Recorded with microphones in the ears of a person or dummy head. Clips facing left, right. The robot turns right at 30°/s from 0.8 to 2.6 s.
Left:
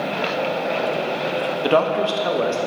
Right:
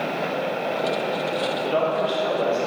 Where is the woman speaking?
70° left (ahead or behind), 0.7 m; by 2.6 s 45° left (ahead or behind), 0.7 m.